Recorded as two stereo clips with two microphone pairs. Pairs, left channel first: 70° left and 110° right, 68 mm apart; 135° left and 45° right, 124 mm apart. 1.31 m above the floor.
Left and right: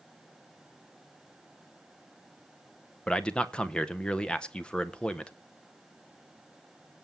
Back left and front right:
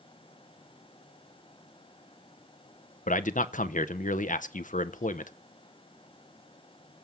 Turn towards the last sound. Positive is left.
turn(degrees=145)